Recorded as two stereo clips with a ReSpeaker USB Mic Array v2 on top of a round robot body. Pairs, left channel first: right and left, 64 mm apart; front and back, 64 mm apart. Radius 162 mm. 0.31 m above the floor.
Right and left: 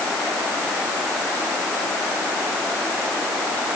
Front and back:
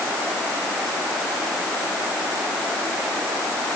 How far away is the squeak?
No squeak in this recording.